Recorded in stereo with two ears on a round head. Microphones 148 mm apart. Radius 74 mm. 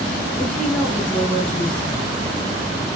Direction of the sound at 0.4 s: 5° left (ahead or behind).